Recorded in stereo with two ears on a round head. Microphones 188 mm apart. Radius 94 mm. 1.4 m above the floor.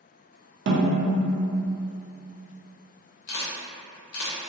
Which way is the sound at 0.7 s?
60° right (ahead or behind).